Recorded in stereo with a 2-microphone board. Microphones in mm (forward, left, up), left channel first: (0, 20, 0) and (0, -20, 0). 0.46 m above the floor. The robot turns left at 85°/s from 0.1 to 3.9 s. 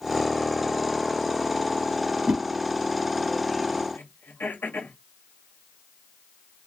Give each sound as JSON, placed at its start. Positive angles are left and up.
{"t": 2.3, "sound": "a whoosh", "side_deg": -30, "distance_m": 2.5}
{"t": 3.9, "sound": "throat clearing", "side_deg": 60, "distance_m": 2.0}